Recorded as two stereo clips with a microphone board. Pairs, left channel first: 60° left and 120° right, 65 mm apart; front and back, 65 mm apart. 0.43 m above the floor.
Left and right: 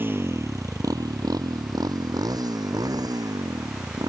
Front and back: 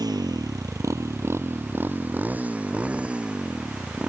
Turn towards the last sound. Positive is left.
turn(degrees=-100)